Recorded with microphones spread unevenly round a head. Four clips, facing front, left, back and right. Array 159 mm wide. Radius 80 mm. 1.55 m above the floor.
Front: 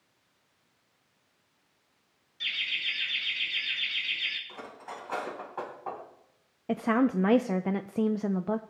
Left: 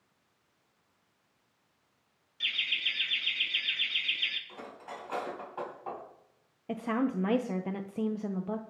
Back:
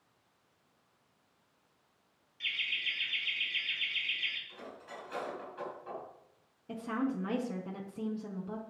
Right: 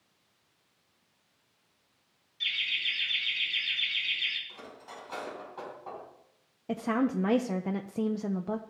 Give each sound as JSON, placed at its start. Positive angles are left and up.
{"t": 2.4, "sound": "laughter", "azimuth_deg": 50, "distance_m": 3.0}
{"t": 4.5, "sound": "cutlery clinking", "azimuth_deg": 30, "distance_m": 6.0}
{"t": 6.7, "sound": "a woman speaking", "azimuth_deg": -10, "distance_m": 0.6}